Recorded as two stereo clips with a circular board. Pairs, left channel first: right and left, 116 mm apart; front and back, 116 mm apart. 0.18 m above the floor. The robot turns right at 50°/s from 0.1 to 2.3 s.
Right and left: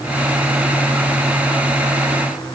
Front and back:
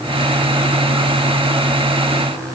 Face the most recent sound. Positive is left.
No sound to turn to.